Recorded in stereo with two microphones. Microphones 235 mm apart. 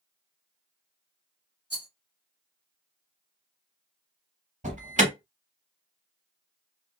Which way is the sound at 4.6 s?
30° right (ahead or behind).